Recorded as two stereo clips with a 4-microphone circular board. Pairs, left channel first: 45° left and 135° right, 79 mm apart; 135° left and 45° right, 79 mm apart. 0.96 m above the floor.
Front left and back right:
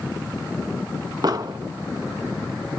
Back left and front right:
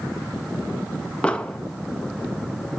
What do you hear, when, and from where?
1.2 s an explosion: 150° right, 1.0 m